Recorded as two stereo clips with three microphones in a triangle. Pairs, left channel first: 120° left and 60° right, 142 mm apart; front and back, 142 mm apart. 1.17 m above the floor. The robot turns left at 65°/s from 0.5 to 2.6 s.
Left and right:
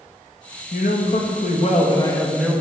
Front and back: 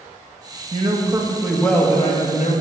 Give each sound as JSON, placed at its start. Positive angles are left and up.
{"t": 0.7, "sound": "a man speaking", "azimuth_deg": 140, "distance_m": 1.3}